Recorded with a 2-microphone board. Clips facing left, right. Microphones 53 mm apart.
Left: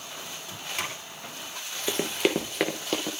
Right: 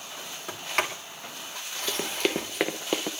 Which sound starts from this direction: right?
A sliding door, at 0.5 s.